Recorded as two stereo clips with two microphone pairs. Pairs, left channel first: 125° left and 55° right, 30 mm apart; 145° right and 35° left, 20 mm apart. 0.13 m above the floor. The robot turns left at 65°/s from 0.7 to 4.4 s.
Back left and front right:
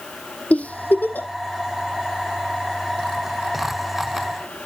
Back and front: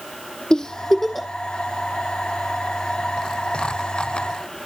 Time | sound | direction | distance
0.5 | a giggle | 160° left | 1.0 m